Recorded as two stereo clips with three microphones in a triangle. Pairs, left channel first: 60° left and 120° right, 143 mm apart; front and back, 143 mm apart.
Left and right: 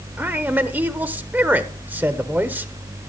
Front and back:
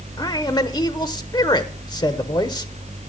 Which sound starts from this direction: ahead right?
A man speaking, at 0.2 s.